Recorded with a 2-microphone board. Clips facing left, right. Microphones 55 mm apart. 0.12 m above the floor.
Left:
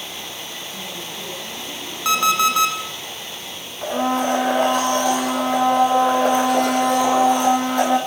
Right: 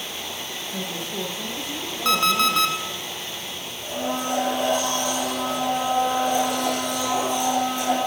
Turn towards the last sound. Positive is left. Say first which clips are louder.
# left 7 dB
turn(degrees=55)  # may be behind; listen again after turning